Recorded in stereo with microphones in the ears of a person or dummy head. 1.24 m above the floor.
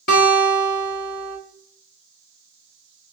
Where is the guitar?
50° left (ahead or behind), 1.0 m.